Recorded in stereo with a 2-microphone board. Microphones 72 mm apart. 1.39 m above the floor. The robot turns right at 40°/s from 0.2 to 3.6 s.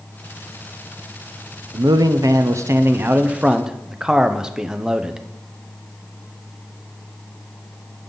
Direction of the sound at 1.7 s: 85° right.